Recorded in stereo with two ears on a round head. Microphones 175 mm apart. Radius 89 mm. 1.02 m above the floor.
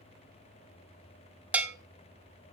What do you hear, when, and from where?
1.5 s a bell: 10° right (ahead or behind), 0.6 m